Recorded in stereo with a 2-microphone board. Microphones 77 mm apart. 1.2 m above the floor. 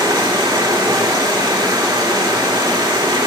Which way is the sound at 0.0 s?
80° right.